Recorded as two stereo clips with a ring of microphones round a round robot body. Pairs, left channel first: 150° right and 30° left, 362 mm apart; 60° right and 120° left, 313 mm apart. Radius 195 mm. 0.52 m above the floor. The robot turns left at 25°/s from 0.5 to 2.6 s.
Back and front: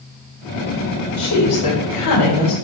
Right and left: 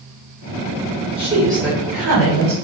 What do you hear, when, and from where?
1.2 s a woman speaking: 165° right, 1.7 m; by 2.5 s 160° left, 1.7 m